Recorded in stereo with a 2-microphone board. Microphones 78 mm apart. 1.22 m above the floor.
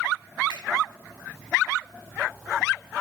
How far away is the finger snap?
About 5.5 m.